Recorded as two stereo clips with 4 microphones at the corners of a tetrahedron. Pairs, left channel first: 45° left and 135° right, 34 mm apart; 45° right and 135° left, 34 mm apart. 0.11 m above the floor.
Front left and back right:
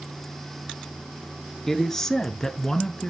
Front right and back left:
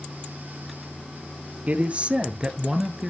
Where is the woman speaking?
125° left, 1.5 m; by 3.1 s 75° left, 1.1 m.